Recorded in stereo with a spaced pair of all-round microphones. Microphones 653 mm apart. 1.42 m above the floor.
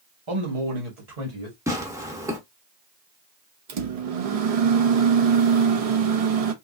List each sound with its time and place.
0.3 s a man speaking: 45° right (ahead or behind), 1.3 m; by 1.6 s 70° right (ahead or behind), 1.9 m
1.7 s tearing paper: 5° right (ahead or behind), 1.1 m
3.7 s a microwave: 65° right (ahead or behind), 0.7 m